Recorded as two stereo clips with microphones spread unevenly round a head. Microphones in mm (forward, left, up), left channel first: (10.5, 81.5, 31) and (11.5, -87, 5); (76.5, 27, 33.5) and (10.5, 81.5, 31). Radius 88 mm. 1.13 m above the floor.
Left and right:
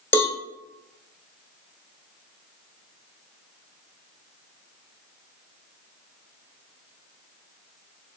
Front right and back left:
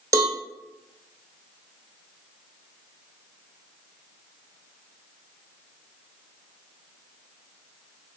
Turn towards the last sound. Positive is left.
turn(degrees=175)